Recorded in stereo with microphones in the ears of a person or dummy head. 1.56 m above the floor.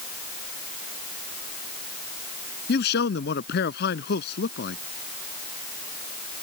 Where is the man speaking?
65° left (ahead or behind).